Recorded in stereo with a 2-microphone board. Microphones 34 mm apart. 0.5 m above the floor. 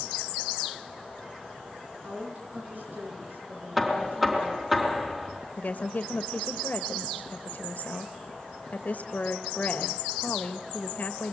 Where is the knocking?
10° right (ahead or behind), 4 m.